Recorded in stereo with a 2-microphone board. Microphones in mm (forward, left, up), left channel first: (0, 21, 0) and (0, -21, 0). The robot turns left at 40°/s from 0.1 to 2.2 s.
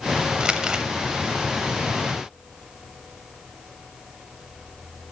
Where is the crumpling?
25° right (ahead or behind), 0.6 m; by 0.9 s 20° right (ahead or behind), 0.6 m.